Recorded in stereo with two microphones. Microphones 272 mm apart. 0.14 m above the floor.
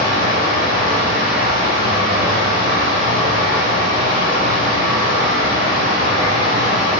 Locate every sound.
0.0 s running water: 35° right (ahead or behind), 1.6 m